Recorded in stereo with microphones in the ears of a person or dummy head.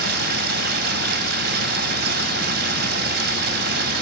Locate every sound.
0.0 s running water: 60° right (ahead or behind), 4.5 m